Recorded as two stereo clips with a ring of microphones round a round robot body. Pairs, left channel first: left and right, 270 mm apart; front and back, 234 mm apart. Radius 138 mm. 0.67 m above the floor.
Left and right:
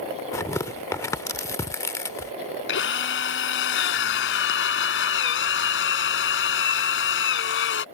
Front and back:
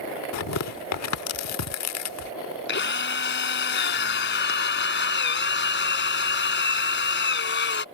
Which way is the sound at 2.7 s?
40° left.